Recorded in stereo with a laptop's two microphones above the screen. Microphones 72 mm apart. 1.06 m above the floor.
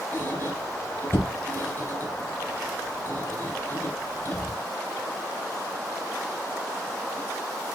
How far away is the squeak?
About 2 m.